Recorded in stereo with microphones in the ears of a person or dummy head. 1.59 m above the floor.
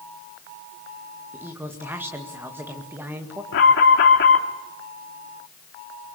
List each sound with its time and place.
1.3 s a woman speaking: 5° right (ahead or behind), 2 m
3.5 s an alarm: 75° left (ahead or behind), 2.5 m